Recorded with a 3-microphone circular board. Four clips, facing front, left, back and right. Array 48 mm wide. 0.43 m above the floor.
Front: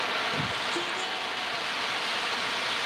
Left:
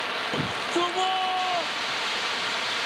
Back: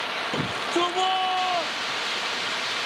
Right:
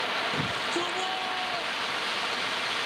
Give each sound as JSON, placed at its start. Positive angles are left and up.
{"t": 0.3, "sound": "a shout", "azimuth_deg": 150}